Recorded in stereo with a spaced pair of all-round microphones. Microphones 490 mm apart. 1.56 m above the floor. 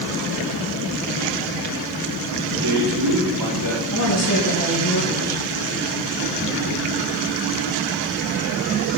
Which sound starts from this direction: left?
A woman speaking, at 3.9 s.